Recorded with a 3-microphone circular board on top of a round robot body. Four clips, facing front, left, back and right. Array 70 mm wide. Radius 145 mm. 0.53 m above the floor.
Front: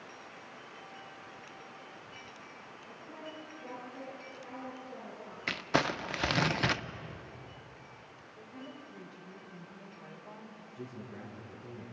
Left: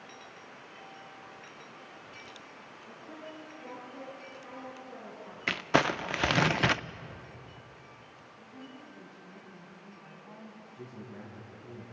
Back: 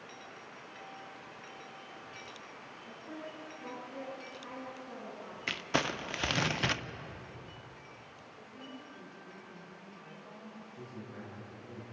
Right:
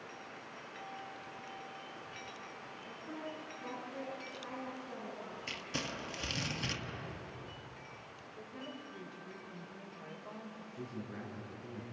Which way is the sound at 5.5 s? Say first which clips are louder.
Left 17 dB, front 3 dB; 80° left.